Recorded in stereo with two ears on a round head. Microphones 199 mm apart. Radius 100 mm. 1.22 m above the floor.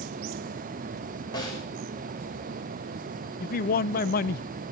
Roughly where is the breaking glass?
I don't hear breaking glass.